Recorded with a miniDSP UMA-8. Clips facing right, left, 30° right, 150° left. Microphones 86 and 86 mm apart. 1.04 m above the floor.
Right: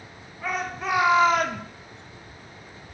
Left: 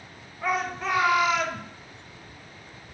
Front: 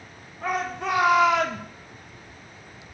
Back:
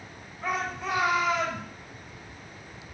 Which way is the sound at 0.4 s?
5° left.